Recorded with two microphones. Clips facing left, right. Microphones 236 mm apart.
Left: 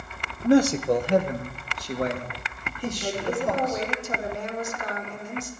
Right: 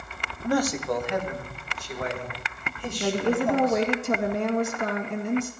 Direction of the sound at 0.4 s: 20° left (ahead or behind).